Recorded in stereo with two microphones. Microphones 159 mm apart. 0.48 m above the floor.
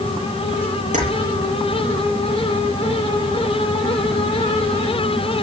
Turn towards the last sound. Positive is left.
turn(degrees=-50)  # may be behind; listen again after turning